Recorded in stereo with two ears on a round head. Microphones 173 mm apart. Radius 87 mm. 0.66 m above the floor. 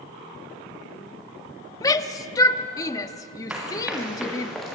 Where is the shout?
20° left (ahead or behind), 1.0 m.